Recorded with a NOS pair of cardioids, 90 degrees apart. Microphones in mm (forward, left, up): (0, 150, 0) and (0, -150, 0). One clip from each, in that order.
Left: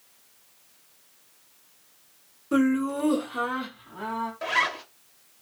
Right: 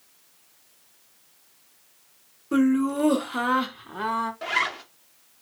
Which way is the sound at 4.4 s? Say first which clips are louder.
Left 4 dB; straight ahead.